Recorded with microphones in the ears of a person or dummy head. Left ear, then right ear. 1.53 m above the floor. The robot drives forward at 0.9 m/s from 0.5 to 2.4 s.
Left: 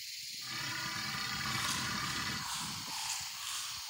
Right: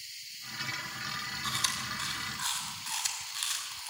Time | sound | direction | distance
1.4 | chewing | 60° right (ahead or behind) | 5.5 m